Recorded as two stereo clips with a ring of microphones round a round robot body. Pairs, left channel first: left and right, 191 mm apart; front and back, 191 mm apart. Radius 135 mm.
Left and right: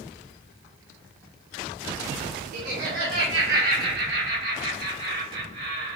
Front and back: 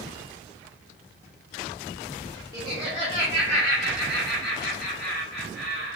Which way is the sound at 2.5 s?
110° right.